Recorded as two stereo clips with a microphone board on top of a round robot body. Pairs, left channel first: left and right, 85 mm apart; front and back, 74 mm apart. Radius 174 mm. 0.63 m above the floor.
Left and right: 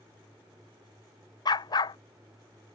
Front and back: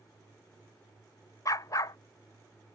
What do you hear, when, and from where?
1.4 s a dog barking: 50° left